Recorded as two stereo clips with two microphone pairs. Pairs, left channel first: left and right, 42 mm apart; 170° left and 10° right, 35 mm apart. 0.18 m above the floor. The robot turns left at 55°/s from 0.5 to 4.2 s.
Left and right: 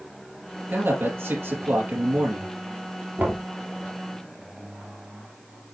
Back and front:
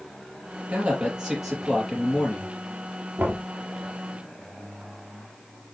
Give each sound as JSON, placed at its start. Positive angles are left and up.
{"t": 0.7, "sound": "a man speaking", "azimuth_deg": -50, "distance_m": 4.5}
{"t": 3.2, "sound": "knocking", "azimuth_deg": -30, "distance_m": 2.5}